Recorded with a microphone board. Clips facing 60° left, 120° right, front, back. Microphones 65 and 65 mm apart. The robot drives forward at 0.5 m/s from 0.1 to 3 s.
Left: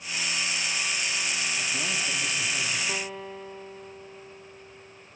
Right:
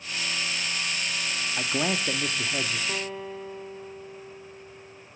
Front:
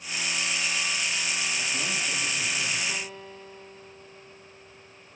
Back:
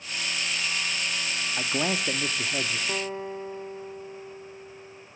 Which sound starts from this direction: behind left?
A guitar, at 2.9 s.